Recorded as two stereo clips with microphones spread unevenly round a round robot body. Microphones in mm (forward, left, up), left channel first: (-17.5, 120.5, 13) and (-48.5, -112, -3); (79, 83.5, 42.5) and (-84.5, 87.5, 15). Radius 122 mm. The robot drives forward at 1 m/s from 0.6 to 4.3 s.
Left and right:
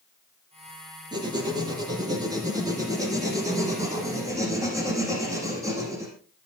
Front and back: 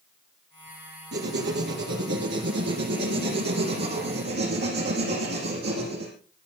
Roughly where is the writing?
Behind.